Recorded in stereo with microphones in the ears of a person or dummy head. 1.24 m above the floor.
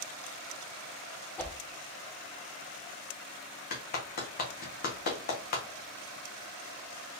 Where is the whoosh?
5° left (ahead or behind), 0.9 m.